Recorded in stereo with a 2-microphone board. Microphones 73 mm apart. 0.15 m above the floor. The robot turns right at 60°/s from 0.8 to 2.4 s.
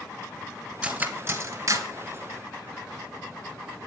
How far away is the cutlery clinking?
About 0.9 m.